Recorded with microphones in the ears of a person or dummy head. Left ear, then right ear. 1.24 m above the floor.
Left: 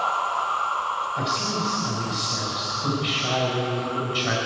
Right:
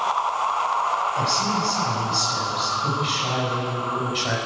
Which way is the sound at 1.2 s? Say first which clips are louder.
Right 3 dB; 5° right (ahead or behind).